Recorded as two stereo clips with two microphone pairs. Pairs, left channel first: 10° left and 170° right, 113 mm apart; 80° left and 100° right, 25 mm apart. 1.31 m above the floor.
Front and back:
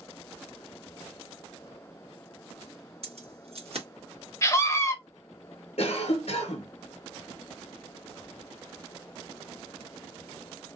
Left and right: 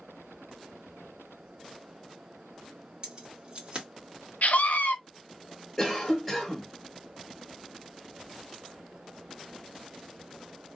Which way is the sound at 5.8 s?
5° right.